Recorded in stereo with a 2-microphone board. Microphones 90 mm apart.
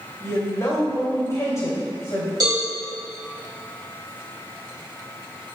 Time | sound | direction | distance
0.2 | a woman speaking | 35° left (ahead or behind) | 2.5 m
2.4 | a cowbell | 50° right (ahead or behind) | 2.5 m